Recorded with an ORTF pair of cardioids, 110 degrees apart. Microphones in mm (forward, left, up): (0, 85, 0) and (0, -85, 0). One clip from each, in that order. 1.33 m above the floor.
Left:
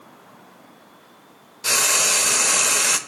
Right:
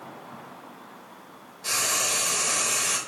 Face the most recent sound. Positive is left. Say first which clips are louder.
# left 7 dB
turn(degrees=55)